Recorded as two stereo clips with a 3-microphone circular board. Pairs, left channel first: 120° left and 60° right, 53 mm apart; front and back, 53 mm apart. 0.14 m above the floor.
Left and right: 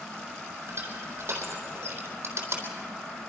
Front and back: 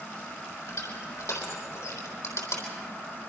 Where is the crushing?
20° right, 4 m.